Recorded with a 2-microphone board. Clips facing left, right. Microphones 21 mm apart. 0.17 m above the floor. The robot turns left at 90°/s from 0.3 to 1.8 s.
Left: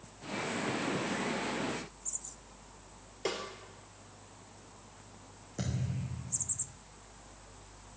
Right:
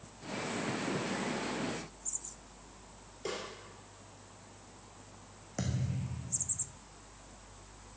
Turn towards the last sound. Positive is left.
turn(degrees=-40)  # may be behind; listen again after turning